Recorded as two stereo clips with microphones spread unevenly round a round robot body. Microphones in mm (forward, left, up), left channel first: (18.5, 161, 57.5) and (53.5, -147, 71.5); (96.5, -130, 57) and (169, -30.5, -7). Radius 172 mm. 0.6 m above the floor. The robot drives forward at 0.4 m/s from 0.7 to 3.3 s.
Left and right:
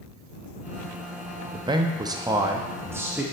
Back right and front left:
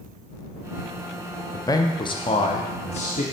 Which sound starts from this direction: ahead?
A man speaking, at 1.5 s.